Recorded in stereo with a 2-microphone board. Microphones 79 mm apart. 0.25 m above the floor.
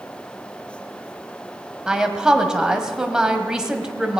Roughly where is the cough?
I don't hear a cough.